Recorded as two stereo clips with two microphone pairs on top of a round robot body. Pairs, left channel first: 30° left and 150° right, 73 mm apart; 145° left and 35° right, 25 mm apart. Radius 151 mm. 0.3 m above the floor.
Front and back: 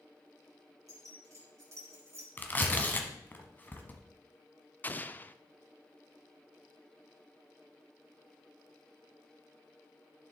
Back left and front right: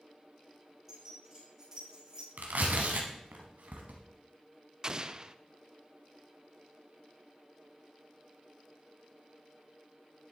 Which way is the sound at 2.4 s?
35° right.